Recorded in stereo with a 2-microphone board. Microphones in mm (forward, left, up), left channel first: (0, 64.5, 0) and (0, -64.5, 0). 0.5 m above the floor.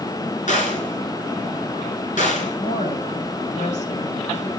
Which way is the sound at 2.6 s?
70° left (ahead or behind).